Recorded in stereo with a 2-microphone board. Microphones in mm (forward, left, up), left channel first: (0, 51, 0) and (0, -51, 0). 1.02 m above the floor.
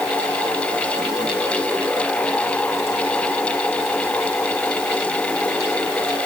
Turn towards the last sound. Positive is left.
No sound to turn to.